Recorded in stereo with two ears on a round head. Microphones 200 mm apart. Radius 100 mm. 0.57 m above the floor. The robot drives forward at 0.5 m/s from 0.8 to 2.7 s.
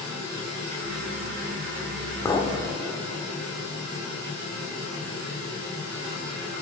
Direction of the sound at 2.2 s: 15° left (ahead or behind).